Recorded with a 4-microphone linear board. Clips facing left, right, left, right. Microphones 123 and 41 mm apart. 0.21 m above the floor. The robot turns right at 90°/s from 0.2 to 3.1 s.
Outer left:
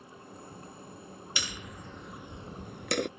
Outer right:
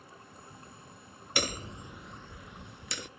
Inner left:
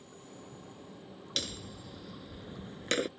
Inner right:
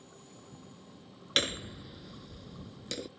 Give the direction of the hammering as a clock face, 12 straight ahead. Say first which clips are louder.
Outer right 8 dB, inner right 7 dB; 2 o'clock.